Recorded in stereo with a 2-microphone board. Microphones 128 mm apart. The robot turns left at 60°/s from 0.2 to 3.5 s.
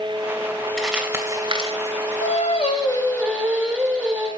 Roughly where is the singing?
Left.